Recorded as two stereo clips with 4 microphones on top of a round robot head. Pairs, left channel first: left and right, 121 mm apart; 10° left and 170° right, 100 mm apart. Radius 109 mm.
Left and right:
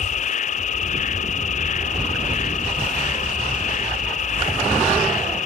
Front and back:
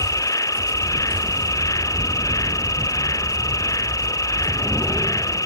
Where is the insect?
70° left.